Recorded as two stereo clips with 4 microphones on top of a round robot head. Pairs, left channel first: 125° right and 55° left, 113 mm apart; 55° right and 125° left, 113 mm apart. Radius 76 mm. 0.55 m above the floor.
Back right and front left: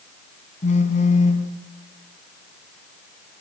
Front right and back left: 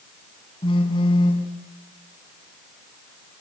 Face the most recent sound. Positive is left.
turn(degrees=-105)